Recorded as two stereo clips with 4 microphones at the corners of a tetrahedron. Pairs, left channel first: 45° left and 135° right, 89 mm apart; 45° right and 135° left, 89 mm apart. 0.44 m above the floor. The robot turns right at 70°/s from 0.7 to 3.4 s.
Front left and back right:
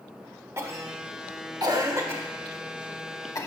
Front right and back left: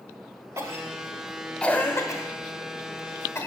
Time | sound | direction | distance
0.6 | a cough | straight behind | 1.3 m